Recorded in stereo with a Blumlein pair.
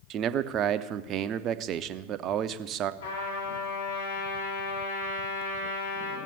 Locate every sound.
0.1 s a man speaking: 30° right, 0.6 m
3.0 s a trumpet: 70° left, 3.5 m